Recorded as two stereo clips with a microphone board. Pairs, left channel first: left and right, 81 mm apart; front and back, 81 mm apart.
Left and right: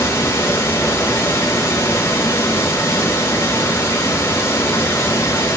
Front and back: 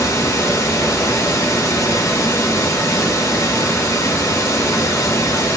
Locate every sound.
0.0 s running water: 45° left, 1.1 m